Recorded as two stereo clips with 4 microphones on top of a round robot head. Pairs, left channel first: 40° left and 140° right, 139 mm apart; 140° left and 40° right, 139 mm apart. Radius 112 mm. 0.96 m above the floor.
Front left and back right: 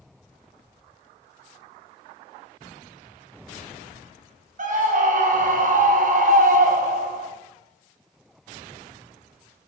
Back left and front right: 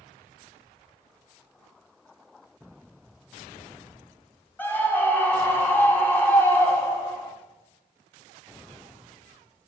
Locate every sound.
4.6 s a scream: 145° right, 1.8 m